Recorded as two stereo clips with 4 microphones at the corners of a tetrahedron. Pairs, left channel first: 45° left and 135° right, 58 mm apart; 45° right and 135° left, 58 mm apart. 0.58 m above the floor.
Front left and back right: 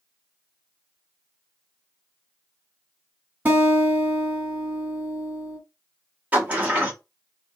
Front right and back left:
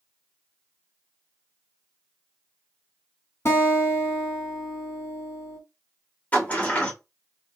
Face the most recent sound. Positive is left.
turn(degrees=-90)